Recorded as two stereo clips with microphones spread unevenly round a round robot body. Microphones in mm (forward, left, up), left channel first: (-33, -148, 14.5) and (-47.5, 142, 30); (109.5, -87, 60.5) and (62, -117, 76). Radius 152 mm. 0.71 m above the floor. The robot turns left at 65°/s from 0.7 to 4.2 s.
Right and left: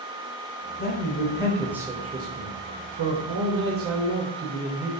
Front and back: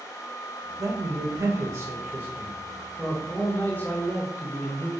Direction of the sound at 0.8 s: 120° right.